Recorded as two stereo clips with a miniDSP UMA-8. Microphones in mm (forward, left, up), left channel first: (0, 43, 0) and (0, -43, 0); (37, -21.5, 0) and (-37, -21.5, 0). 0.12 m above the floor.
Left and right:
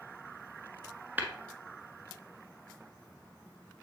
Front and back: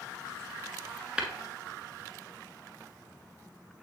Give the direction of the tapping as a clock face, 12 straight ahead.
4 o'clock.